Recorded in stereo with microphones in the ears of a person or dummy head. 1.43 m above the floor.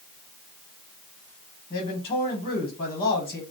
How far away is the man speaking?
About 0.9 m.